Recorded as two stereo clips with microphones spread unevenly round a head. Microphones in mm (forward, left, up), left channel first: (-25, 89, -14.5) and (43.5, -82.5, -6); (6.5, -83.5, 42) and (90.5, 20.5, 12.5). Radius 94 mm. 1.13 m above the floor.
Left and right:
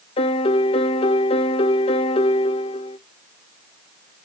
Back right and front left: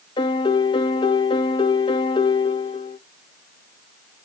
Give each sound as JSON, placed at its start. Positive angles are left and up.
{"t": 0.2, "sound": "a piano", "azimuth_deg": 165, "distance_m": 0.5}